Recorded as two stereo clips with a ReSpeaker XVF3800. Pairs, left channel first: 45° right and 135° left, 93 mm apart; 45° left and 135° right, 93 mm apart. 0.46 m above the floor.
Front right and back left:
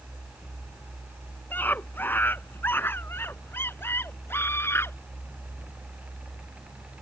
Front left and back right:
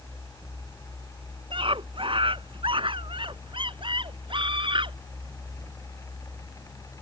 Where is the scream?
115° right; by 5.0 s 110° right.